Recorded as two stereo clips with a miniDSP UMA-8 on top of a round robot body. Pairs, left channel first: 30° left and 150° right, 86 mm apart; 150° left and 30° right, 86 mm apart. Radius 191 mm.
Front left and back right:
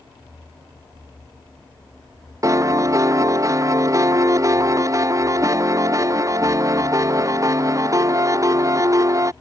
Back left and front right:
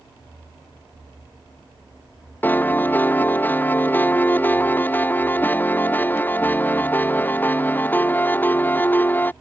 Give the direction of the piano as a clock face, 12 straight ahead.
5 o'clock.